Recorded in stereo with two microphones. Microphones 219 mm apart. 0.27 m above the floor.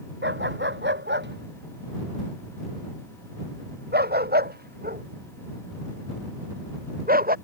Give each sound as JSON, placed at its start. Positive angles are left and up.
{"t": 0.2, "sound": "a dog barking", "side_deg": -55}